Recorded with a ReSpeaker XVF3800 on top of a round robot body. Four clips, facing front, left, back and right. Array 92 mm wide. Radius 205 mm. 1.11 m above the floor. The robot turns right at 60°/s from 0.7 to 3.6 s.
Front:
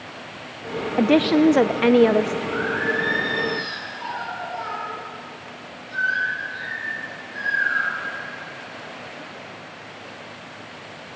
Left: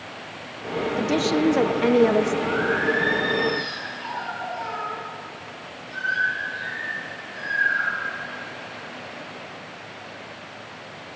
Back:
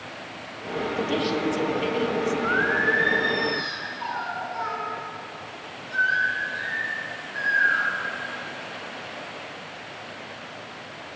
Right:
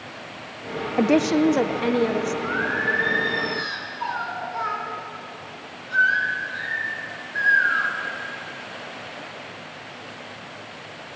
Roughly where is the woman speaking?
Ahead right.